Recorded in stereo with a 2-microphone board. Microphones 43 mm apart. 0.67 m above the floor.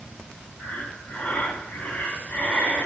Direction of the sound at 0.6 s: 35° left (ahead or behind).